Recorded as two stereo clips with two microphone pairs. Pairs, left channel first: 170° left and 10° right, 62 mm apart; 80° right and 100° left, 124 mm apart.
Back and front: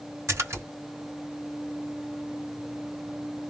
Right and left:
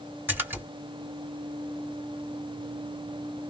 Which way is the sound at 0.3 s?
25° left.